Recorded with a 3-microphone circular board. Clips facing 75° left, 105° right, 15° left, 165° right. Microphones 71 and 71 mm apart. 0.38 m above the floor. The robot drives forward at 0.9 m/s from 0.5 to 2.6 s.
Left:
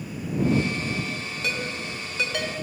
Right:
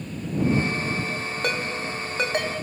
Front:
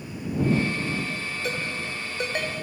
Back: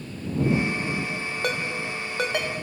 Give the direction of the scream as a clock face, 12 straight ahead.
I don't hear a scream.